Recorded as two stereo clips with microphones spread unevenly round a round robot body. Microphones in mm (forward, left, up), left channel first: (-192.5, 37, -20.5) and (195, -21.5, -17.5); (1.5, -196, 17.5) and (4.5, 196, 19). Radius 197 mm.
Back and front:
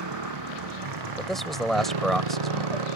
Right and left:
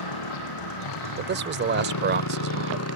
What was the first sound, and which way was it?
A motorcycle, 55° right.